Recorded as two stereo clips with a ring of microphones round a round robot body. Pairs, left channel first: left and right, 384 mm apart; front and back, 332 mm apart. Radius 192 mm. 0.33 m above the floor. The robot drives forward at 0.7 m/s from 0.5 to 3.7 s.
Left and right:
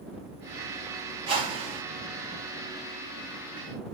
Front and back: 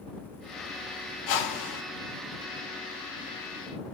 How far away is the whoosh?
About 5 m.